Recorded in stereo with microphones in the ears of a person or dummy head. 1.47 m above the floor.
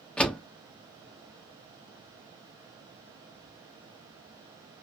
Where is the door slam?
5° left (ahead or behind), 1.0 m.